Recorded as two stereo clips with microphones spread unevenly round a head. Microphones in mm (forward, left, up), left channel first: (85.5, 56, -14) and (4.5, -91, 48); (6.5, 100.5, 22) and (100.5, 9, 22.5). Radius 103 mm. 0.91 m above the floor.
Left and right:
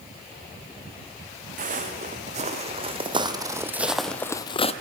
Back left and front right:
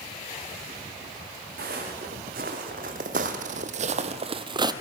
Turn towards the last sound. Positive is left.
turn(degrees=0)